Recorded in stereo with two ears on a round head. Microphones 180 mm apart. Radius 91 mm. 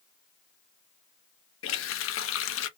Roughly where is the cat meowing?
No cat meowing in this recording.